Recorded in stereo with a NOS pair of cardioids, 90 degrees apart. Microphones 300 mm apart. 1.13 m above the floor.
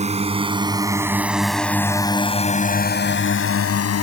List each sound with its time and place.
0.0 s a drone: 20° right; by 4.0 s 55° left